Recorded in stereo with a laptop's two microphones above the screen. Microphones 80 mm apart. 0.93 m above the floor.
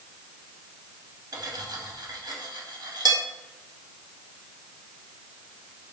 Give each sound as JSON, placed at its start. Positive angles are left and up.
{"t": 1.3, "sound": "cutlery clinking", "side_deg": -55, "distance_m": 0.6}